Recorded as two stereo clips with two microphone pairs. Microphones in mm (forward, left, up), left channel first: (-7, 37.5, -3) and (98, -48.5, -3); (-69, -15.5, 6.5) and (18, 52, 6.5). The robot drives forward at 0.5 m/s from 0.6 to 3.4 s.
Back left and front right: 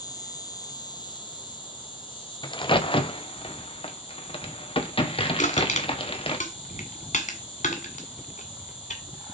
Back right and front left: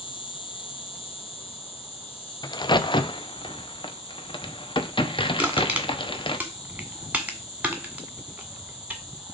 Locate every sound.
0.0 s an insect: 165° right, 1.0 m; by 9.3 s 175° right, 2 m
2.4 s a crack: 175° right, 0.5 m; by 6.4 s straight behind, 1.0 m
5.4 s crushing: 115° left, 1.8 m